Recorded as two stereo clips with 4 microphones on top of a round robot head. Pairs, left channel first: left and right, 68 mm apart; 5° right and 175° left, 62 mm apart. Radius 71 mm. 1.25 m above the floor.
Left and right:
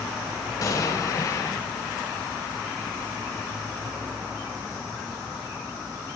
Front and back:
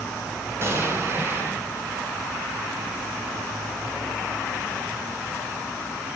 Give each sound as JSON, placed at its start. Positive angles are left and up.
{"t": 0.6, "sound": "an explosion", "azimuth_deg": 125, "distance_m": 5.5}